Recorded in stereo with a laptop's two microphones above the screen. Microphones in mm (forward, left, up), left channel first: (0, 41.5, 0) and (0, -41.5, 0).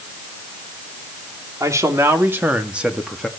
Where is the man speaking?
40° right (ahead or behind), 3 m; by 3.3 s 5° left (ahead or behind), 1.9 m.